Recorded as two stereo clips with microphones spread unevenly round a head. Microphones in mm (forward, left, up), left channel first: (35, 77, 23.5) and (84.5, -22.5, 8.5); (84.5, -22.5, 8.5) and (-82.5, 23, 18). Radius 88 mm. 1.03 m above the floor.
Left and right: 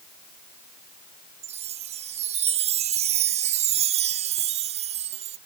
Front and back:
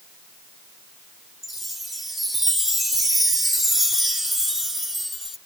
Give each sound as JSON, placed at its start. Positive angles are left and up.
{"t": 1.4, "sound": "a chime", "azimuth_deg": -105}